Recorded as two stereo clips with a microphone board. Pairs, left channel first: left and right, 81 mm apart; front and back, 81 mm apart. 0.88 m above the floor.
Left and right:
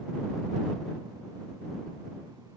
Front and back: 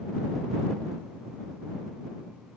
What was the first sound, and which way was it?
Only background noise.